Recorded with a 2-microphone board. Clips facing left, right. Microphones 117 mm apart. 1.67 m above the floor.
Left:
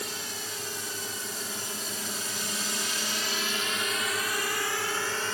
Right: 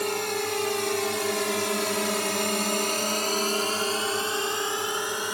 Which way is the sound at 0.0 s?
65° right (ahead or behind).